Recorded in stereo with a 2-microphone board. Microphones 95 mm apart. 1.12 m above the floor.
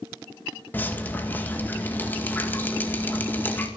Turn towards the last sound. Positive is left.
turn(degrees=20)  # may be behind; listen again after turning